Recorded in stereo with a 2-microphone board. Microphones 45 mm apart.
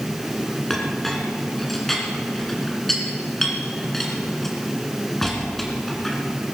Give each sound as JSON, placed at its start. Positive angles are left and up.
{"t": 0.7, "sound": "a clink", "side_deg": 5, "distance_m": 2.5}